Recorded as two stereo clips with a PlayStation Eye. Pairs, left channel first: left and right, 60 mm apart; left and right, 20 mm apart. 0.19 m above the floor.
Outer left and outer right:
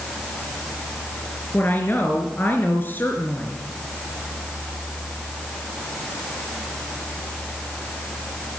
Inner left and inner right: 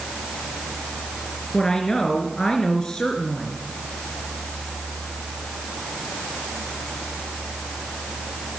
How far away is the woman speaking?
About 3 m.